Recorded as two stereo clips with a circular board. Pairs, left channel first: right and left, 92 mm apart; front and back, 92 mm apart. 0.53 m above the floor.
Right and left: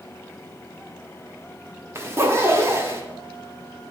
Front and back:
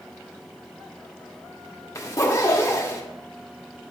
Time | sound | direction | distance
1.9 | a zipper | 45° left | 1.0 m